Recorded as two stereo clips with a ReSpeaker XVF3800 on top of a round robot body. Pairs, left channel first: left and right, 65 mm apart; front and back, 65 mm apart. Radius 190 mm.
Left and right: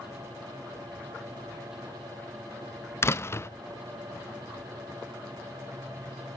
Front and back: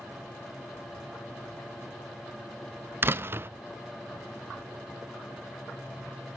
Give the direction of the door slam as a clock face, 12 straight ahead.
8 o'clock.